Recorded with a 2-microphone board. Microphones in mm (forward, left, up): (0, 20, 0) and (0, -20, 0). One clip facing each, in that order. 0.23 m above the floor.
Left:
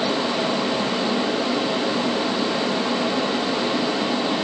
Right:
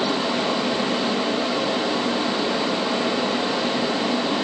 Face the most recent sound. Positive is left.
No sound to turn to.